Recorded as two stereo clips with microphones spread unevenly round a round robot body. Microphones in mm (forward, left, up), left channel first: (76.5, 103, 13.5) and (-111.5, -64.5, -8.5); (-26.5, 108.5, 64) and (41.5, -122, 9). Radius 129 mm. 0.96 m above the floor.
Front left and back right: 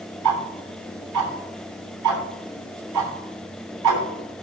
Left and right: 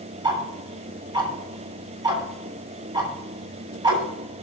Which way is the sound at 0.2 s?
150° right.